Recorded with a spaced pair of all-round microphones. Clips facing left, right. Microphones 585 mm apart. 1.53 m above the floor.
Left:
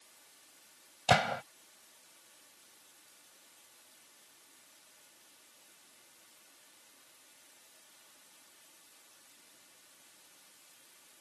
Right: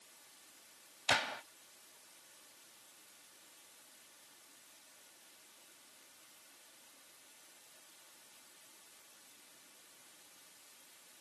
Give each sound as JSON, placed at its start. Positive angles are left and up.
{"t": 1.1, "sound": "a gunshot", "side_deg": 80}